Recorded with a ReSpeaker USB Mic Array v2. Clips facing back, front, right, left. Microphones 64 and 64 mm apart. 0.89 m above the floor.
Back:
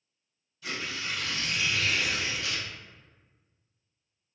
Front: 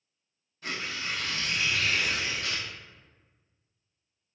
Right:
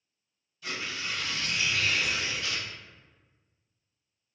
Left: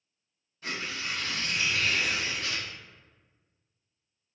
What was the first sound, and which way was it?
Tearing paper, 45° left.